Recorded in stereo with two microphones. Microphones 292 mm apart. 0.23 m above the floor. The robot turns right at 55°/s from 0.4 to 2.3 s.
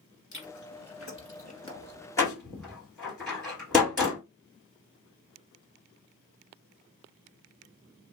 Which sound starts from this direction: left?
Chewing, at 0.3 s.